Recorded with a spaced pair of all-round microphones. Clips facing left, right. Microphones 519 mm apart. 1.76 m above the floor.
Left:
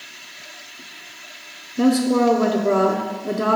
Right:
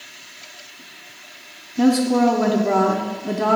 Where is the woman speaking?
10° right (ahead or behind), 0.6 m.